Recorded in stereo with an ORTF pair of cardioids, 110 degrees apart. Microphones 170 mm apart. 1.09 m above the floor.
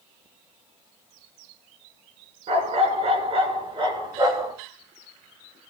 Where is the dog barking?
45° right, 4 m; by 4.5 s 25° right, 4.5 m.